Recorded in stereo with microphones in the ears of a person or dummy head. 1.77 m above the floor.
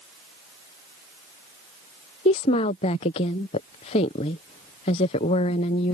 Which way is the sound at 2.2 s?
15° left (ahead or behind).